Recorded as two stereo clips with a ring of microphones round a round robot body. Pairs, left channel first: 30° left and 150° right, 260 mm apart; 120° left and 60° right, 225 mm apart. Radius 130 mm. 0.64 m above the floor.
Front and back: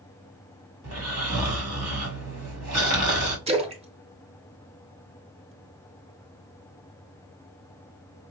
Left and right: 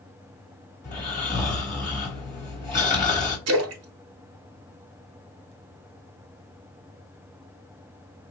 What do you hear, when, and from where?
0.8 s snoring: 165° right, 1.9 m
3.5 s a splash: 85° right, 0.8 m